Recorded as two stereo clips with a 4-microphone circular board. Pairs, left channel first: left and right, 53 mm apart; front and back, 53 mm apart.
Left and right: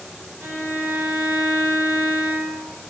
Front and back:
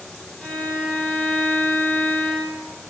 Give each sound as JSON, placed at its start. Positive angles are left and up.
{"t": 0.4, "sound": "a violin", "azimuth_deg": -100, "distance_m": 1.8}